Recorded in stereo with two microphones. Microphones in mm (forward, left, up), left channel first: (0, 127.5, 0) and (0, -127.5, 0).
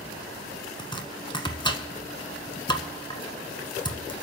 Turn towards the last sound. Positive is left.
turn(degrees=20)  # may be behind; listen again after turning